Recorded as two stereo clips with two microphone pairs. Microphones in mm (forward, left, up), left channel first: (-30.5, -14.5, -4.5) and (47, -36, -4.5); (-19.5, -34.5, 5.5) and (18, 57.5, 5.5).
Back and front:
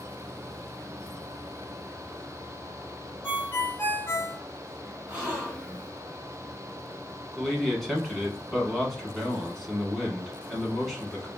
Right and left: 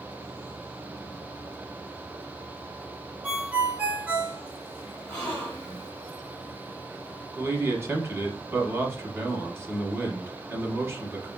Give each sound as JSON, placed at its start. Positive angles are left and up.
{"t": 3.2, "sound": "a ringtone", "azimuth_deg": 130, "distance_m": 1.3}
{"t": 5.1, "sound": "a gasp", "azimuth_deg": -50, "distance_m": 1.6}
{"t": 7.4, "sound": "a man speaking", "azimuth_deg": 75, "distance_m": 1.1}